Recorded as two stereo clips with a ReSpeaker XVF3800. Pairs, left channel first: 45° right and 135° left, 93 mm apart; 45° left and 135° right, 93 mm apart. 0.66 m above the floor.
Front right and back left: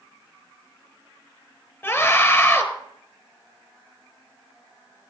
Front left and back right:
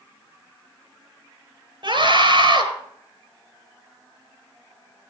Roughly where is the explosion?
No explosion in this recording.